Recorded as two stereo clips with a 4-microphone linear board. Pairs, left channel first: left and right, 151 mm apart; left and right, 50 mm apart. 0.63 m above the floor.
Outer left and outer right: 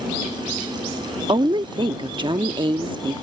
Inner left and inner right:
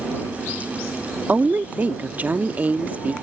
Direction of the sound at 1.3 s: 30° right (ahead or behind).